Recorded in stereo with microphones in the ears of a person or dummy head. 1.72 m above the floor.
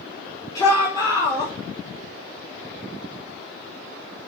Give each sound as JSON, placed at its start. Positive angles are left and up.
{"t": 0.6, "sound": "a shout", "side_deg": 20, "distance_m": 6.5}